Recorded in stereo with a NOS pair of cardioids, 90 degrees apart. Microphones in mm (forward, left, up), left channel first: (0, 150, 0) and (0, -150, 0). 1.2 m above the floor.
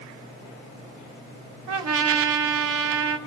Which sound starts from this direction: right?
A trumpet, at 1.7 s.